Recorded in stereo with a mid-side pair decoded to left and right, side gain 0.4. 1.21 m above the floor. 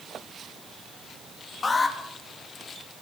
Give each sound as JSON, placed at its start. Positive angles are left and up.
{"t": 1.6, "sound": "an alarm", "azimuth_deg": 40, "distance_m": 2.5}